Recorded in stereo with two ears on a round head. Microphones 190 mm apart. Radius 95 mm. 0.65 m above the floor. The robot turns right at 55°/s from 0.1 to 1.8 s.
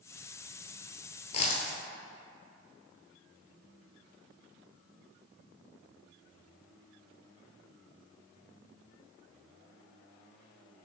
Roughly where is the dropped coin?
Left.